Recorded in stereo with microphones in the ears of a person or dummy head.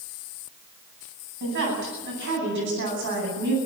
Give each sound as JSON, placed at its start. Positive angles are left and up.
{"t": 1.4, "sound": "a woman speaking", "side_deg": -60, "distance_m": 10.0}